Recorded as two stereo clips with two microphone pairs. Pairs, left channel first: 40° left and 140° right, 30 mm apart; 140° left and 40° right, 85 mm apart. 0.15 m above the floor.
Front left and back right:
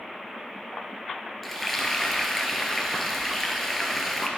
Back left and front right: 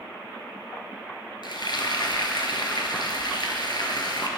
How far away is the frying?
About 1.9 m.